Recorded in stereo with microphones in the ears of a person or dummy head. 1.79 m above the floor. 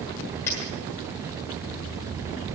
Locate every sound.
0.5 s a dropped coin: 10° left (ahead or behind), 1.6 m